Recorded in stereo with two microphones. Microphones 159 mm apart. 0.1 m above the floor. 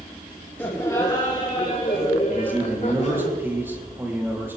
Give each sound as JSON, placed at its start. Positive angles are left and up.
{"t": 0.6, "sound": "laughter", "side_deg": 15, "distance_m": 2.5}
{"t": 2.3, "sound": "a man speaking", "side_deg": -15, "distance_m": 3.5}